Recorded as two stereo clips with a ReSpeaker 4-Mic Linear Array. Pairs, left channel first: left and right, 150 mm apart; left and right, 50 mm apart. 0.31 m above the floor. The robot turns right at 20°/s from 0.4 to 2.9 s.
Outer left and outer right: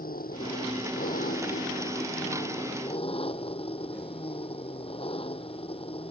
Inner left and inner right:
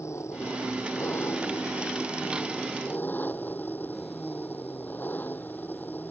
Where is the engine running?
90° left; by 6.1 s 140° left.